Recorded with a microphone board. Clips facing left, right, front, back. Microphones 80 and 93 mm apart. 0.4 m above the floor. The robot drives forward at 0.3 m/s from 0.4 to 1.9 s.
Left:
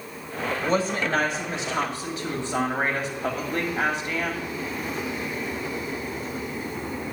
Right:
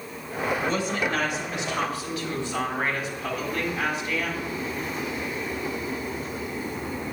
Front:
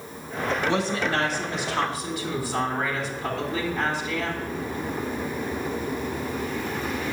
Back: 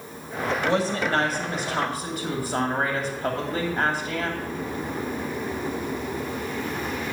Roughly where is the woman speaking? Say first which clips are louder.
Left 2 dB, back 2 dB; behind left.